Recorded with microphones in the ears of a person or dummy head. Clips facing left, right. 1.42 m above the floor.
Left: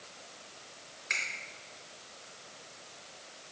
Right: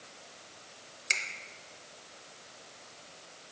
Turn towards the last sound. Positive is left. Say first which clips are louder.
# right 2 dB
turn(degrees=-40)  # may be behind; listen again after turning